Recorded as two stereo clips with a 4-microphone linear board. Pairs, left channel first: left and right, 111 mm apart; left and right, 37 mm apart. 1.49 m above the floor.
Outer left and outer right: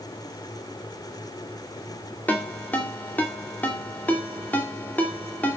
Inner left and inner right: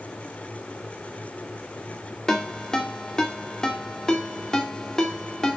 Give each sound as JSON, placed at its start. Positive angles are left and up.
{"t": 2.3, "sound": "a ringtone", "side_deg": 15, "distance_m": 2.5}